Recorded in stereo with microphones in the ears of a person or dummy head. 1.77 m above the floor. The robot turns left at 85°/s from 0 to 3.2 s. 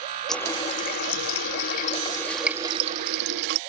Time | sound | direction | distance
0.3 | a running tap | straight behind | ?